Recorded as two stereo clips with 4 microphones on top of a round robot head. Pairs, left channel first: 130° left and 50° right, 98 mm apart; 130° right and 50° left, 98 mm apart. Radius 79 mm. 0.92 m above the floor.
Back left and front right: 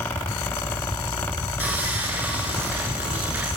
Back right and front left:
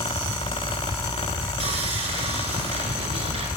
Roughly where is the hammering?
No hammering in this recording.